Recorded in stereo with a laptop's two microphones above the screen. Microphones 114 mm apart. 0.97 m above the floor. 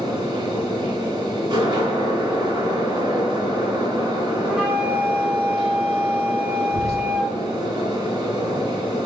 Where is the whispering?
Centre (ahead or behind), 0.8 m.